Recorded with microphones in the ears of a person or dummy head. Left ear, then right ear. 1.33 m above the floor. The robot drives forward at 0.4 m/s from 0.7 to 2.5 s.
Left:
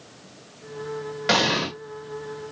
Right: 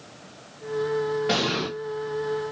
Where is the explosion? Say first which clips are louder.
Left 9 dB; 25° left (ahead or behind), 1.0 m.